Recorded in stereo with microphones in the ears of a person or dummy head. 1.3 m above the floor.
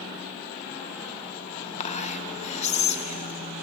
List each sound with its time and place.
1.8 s whispering: 40° left (ahead or behind), 1.2 m